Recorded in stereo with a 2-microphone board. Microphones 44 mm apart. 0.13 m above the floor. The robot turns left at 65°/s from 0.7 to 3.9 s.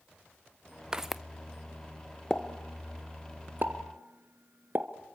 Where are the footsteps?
15° right (ahead or behind), 0.7 m; by 1.2 s centre (ahead or behind), 0.7 m.